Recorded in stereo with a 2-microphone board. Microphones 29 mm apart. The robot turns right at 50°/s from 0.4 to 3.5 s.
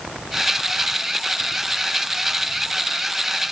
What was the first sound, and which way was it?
Only background noise.